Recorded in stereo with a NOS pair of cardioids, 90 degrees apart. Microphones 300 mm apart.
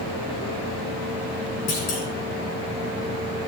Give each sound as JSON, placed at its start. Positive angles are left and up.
{"t": 1.7, "sound": "a clunk", "azimuth_deg": 55, "distance_m": 5.5}